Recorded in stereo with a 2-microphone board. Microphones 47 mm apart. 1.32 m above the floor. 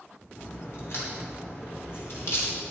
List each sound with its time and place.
0.4 s a crack: 60° left (ahead or behind), 3.5 m